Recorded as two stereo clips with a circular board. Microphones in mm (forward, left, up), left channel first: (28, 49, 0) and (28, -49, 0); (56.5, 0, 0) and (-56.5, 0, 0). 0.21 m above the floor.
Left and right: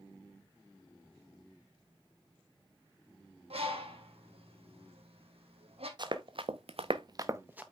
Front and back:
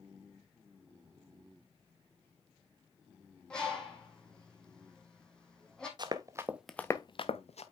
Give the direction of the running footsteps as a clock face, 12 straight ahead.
4 o'clock.